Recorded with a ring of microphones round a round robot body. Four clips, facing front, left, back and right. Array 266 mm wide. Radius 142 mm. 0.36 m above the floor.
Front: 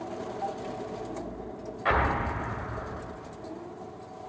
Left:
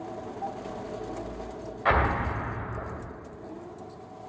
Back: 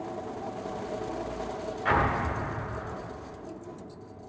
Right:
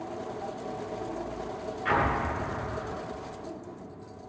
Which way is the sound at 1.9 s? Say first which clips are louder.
Left 2 dB, even; 65° left.